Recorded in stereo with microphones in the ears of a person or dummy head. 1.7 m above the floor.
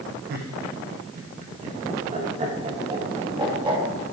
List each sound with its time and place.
0.3 s laughter: 65° right (ahead or behind), 1.5 m; by 4.1 s 35° right (ahead or behind), 3 m